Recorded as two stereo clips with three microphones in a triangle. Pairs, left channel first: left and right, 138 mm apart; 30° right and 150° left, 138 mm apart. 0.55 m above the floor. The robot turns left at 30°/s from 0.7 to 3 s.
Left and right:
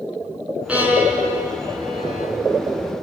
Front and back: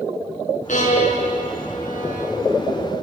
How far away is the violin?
About 4 m.